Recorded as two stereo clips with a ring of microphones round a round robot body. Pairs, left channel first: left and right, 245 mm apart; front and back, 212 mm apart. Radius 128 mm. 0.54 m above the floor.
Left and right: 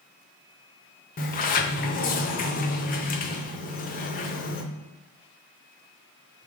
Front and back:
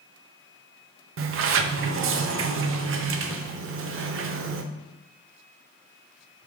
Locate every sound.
1.2 s a sliding door: 150° left, 0.5 m